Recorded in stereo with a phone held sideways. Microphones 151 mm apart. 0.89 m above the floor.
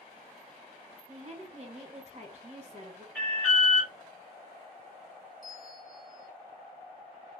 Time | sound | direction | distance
1.1 | a woman speaking | 40° right (ahead or behind) | 0.9 m
3.1 | an alarm | 5° left (ahead or behind) | 1.8 m
5.4 | a bell | 70° left (ahead or behind) | 1.2 m